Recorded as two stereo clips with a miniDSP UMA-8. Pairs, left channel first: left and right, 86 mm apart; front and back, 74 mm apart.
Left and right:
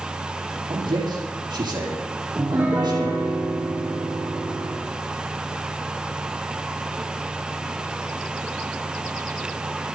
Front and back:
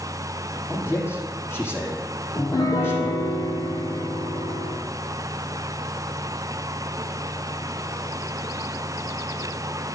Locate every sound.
0.7 s a man speaking: 60° right, 7 m
2.4 s a piano: 20° right, 4.5 m